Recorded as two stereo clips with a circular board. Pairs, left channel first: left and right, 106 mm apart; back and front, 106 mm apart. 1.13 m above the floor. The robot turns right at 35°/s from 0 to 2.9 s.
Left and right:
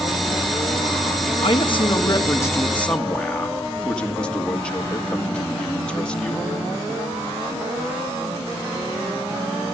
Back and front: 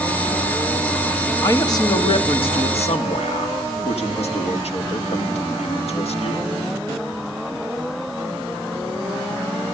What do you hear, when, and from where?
1.4 s a man speaking: 120° left, 2 m; by 6.5 s 170° left, 2 m